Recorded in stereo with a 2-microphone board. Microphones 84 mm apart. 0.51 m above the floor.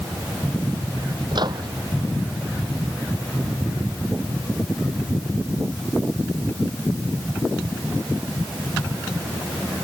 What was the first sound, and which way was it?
A microwave, 55° right (ahead or behind).